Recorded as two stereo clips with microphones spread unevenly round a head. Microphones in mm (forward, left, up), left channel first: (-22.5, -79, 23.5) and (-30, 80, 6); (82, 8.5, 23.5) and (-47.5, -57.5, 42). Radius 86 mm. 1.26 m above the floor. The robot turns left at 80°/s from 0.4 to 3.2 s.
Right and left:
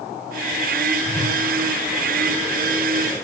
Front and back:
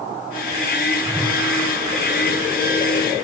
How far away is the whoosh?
About 1.0 m.